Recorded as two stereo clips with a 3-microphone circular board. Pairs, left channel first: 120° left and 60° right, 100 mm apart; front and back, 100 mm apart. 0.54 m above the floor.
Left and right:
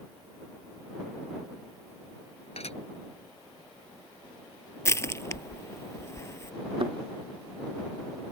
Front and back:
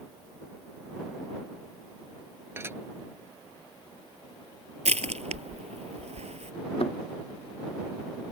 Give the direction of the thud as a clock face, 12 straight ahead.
1 o'clock.